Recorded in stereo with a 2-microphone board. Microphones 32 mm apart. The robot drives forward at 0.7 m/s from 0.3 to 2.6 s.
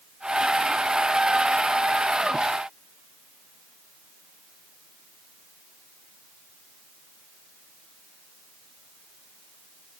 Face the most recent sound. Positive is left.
No sound to turn to.